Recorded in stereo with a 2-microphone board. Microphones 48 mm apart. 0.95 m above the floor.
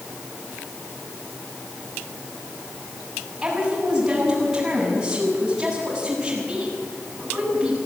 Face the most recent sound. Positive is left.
turn(degrees=-10)  # may be behind; listen again after turning